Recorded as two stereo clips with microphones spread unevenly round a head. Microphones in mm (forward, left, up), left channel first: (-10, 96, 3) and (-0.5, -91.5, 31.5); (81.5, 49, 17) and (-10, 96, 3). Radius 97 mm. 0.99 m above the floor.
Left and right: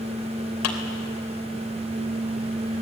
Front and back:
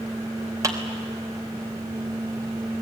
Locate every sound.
0.6 s a clap: 95° left, 3.5 m